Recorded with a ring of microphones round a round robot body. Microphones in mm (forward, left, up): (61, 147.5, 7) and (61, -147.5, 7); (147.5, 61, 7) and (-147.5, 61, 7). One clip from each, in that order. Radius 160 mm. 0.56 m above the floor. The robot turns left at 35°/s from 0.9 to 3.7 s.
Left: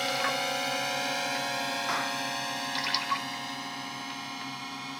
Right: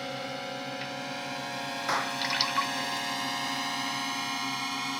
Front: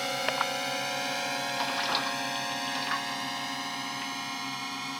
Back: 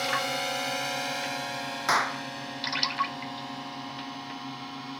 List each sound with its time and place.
0.0 s a drone: 80° left; by 5.0 s 35° right
1.9 s a clap: 175° right; by 2.2 s 175° left